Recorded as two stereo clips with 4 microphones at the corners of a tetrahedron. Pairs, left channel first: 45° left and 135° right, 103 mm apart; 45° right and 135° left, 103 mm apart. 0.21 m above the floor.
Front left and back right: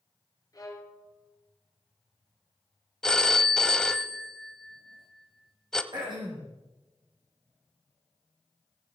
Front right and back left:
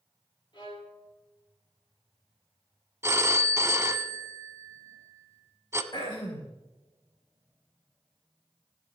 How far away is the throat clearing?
About 4 m.